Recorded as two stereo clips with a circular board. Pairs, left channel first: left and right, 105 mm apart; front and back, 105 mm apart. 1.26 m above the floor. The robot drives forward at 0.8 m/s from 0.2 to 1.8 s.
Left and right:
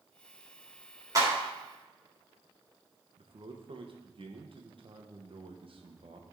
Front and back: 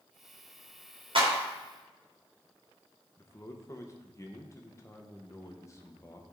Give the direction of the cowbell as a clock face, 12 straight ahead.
I don't hear a cowbell.